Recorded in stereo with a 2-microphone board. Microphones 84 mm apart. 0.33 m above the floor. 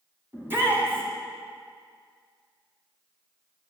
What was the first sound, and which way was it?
A shout, 25° right (ahead or behind).